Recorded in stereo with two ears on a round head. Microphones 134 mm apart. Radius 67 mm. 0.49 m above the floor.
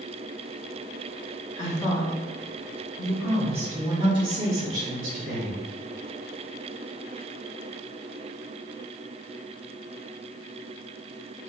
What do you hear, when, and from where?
1.6 s a woman speaking: 30° left (ahead or behind), 1.7 m; by 5.6 s 60° right (ahead or behind), 1.9 m